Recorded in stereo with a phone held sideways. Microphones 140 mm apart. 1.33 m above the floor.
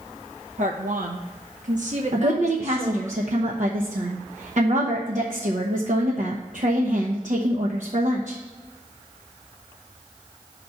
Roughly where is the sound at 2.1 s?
Right.